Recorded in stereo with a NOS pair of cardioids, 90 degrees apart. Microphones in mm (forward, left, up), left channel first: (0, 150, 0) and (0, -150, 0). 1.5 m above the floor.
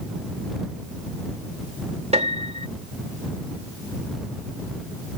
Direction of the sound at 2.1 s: 20° right.